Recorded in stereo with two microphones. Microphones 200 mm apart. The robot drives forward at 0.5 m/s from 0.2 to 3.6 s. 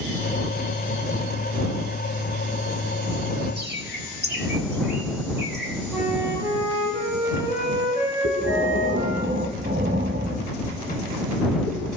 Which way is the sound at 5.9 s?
15° right (ahead or behind).